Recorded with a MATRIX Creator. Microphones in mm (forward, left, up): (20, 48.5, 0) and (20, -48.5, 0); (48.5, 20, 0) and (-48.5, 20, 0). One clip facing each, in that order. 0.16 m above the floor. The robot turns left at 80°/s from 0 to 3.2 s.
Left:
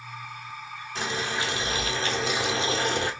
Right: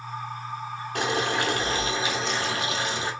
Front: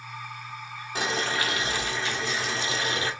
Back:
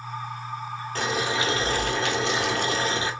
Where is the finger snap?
I don't hear a finger snap.